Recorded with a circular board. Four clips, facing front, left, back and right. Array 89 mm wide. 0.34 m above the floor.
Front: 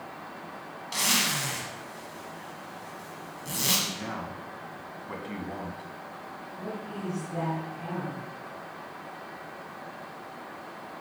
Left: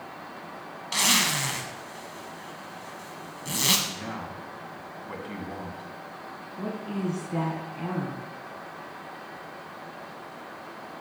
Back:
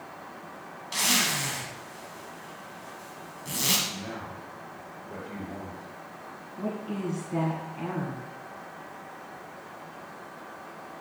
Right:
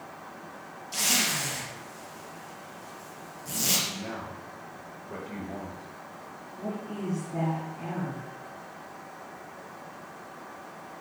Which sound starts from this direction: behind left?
A woman speaking, at 6.6 s.